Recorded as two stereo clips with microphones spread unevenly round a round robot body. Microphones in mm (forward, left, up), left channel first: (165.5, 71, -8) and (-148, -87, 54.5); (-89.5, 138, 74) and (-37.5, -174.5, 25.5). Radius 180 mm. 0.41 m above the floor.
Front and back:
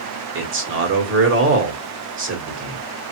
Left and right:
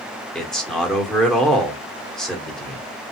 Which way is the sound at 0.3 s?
155° right.